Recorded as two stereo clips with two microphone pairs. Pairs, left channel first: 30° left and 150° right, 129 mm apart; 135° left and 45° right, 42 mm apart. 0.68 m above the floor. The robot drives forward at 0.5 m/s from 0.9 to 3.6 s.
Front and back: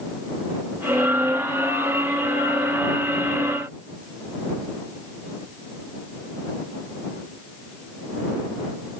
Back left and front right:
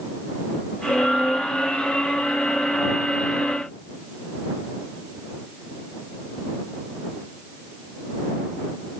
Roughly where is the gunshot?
No gunshot in this recording.